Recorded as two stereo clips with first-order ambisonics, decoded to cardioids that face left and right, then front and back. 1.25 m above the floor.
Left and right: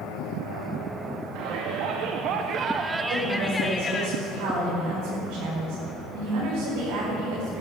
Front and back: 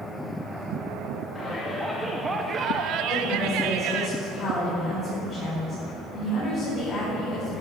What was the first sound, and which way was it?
A shout, 75° right.